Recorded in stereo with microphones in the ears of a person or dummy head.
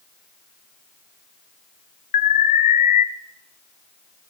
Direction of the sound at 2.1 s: 40° left (ahead or behind).